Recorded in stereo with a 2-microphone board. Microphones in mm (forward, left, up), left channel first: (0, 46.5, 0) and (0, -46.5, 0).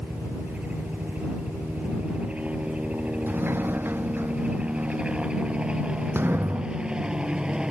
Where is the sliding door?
25° right (ahead or behind).